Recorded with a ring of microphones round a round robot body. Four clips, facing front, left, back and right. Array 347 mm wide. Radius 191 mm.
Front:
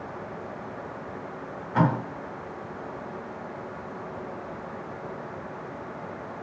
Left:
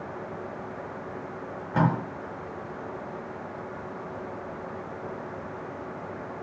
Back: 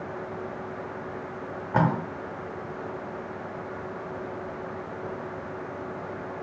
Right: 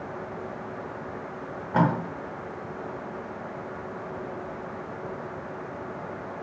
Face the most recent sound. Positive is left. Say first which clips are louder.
# right 2 dB, even
turn(degrees=-155)